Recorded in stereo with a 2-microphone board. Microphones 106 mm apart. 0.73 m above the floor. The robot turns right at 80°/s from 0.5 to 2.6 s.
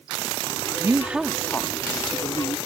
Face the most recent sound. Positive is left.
turn(degrees=105)